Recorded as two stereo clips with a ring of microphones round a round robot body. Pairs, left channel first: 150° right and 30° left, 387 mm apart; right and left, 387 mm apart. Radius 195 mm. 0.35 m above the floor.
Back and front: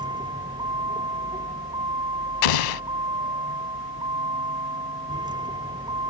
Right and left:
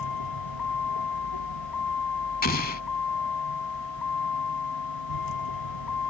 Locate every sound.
0.0 s a vehicle: 50° right
2.4 s an explosion: 160° right